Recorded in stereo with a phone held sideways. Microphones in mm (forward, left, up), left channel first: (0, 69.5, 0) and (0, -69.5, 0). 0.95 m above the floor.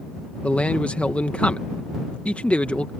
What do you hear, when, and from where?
0.4 s a man speaking: 10° left (ahead or behind)